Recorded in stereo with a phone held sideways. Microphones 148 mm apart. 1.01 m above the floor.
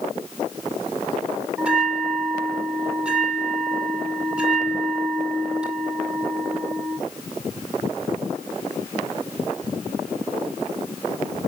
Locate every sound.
1.6 s a bell: 10° right (ahead or behind), 2 m